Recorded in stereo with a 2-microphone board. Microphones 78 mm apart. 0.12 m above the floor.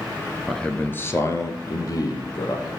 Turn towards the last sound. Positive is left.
turn(degrees=55)  # may be behind; listen again after turning